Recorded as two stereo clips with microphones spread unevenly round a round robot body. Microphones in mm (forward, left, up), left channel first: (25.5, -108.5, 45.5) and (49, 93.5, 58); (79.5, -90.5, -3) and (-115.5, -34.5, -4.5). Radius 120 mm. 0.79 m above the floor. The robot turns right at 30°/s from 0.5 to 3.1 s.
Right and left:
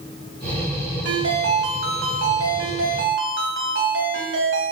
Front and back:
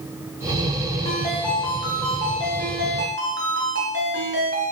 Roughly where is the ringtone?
Ahead left.